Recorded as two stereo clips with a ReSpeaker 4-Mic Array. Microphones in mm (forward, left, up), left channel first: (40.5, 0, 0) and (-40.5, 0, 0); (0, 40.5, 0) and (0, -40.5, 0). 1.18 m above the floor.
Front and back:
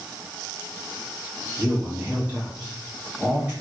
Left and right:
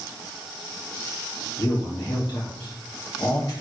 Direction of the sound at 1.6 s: 115° left.